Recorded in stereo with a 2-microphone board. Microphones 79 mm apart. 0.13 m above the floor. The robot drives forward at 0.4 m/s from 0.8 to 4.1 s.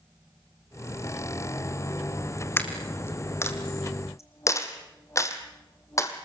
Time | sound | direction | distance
2.6 | a dropped coin | 25° left (ahead or behind) | 2 m